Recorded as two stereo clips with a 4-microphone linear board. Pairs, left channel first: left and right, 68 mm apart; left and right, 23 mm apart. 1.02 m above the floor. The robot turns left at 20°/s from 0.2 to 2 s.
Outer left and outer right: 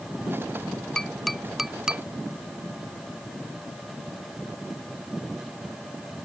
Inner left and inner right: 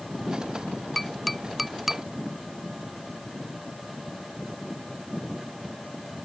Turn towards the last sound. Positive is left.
turn(degrees=-10)  # may be behind; listen again after turning